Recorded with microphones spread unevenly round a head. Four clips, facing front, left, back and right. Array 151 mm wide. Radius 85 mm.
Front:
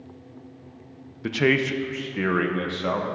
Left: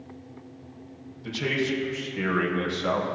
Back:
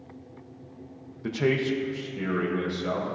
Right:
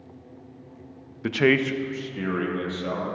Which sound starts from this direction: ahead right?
A man speaking, at 1.2 s.